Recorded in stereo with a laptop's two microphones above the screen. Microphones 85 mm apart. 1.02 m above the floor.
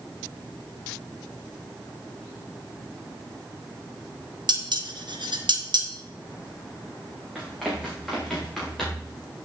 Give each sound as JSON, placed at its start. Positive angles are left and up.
{"t": 4.5, "sound": "dishes clattering", "side_deg": -65, "distance_m": 1.1}
{"t": 7.3, "sound": "running footsteps", "side_deg": -5, "distance_m": 3.5}